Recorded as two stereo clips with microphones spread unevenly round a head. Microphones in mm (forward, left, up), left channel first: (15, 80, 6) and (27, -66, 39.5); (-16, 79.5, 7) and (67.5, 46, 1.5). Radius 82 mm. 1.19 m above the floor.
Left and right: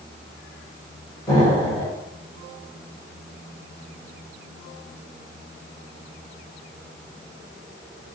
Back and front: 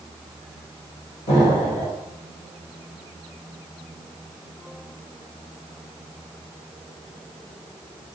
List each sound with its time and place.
1.3 s an explosion: 175° left, 2.0 m